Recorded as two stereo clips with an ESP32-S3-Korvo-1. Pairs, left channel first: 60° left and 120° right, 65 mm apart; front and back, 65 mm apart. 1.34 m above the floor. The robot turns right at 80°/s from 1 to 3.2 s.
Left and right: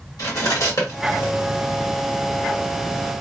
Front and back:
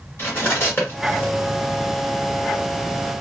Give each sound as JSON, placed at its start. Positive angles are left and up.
{"t": 0.2, "sound": "cutlery clinking", "azimuth_deg": 50, "distance_m": 1.2}